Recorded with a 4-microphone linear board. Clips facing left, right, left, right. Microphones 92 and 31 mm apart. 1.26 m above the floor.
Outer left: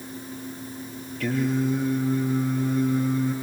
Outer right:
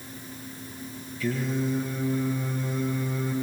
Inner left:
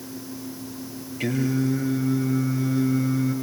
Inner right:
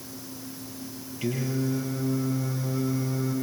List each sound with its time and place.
1.2 s singing: 60° left (ahead or behind), 7.5 m